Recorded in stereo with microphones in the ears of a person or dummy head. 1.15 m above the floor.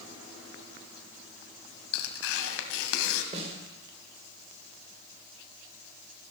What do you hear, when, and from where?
1.9 s tearing paper: 65° left (ahead or behind), 2 m
3.3 s a snare drum: 35° right (ahead or behind), 3 m